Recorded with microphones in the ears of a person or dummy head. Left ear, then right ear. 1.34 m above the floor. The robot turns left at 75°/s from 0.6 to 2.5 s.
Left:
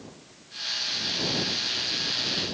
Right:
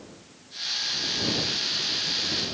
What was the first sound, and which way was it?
Only background noise.